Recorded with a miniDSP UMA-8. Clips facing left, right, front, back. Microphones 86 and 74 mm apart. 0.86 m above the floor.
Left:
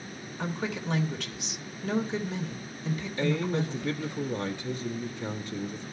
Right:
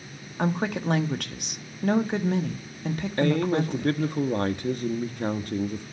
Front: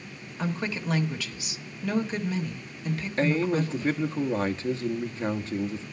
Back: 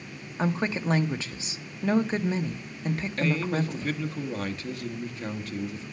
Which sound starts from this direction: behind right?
A woman speaking, at 0.4 s.